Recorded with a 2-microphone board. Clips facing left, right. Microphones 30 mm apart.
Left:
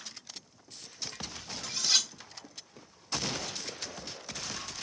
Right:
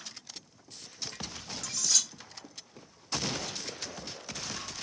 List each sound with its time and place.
1.6 s cutlery clinking: 35° left (ahead or behind), 0.6 m